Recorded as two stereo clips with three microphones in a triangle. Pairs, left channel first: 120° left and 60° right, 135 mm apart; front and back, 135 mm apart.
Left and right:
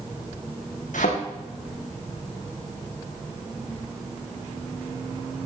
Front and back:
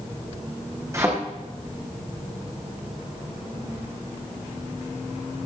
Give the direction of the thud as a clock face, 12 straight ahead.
8 o'clock.